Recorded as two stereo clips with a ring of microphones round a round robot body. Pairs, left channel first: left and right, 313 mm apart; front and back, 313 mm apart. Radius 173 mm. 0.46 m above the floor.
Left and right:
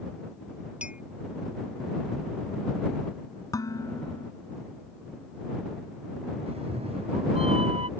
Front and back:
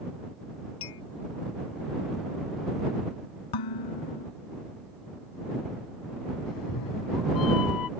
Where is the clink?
5° right.